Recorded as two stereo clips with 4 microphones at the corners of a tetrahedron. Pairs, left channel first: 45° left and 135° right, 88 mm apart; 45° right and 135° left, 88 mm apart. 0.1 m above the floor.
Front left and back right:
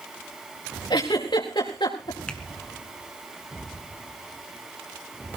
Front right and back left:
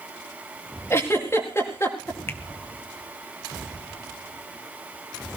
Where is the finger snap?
25° right, 1.3 m.